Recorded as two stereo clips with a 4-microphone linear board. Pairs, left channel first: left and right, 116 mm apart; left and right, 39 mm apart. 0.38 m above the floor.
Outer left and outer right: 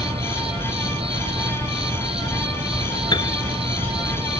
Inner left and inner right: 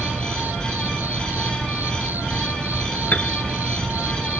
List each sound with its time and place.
0.0 s an insect: 55° right (ahead or behind)
3.1 s a piano: 40° left (ahead or behind)